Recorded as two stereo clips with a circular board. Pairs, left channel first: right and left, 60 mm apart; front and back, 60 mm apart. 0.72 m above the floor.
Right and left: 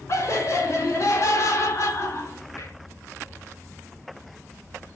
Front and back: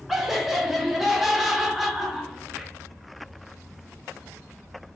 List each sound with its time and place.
0.1 s laughter: 95° right, 0.8 m